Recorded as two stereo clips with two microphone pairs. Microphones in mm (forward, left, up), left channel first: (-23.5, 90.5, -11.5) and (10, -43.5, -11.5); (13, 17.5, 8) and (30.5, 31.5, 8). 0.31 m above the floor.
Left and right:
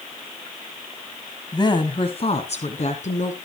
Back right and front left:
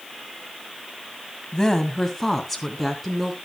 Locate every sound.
1.5 s a woman speaking: 160° left, 1.9 m; by 3.4 s 125° left, 3.5 m